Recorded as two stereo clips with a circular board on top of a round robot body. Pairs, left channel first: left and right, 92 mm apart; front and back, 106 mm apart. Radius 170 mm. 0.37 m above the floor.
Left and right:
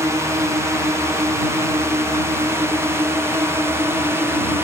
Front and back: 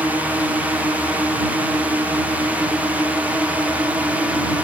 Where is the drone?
115° right.